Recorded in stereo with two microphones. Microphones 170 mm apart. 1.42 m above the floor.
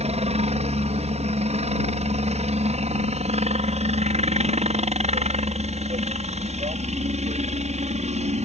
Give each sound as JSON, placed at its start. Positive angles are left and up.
{"t": 0.0, "sound": "a helicopter", "side_deg": -40}